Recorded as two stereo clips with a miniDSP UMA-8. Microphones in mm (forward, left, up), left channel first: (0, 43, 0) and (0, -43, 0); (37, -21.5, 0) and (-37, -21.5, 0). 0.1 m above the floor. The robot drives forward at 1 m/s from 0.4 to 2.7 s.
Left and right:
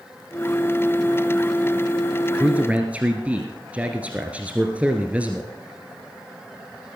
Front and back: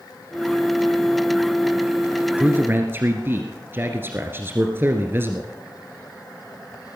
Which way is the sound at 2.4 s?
135° right.